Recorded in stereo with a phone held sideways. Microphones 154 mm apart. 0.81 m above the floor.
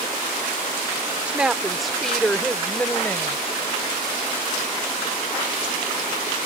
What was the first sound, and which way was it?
A woman speaking, 10° right (ahead or behind).